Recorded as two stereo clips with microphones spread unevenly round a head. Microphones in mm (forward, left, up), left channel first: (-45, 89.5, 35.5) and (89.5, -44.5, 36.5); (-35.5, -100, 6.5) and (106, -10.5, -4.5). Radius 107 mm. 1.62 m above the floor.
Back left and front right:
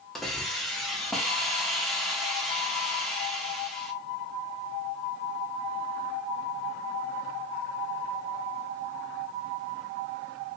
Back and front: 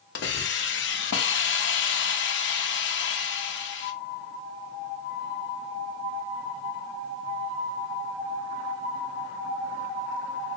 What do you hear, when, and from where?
0.1 s a hiss: 135° right, 0.6 m